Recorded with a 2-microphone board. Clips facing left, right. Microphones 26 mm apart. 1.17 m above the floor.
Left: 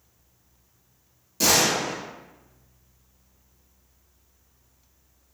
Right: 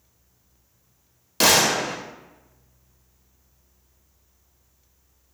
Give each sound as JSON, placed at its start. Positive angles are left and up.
{"t": 1.4, "sound": "a gunshot", "side_deg": -65, "distance_m": 0.6}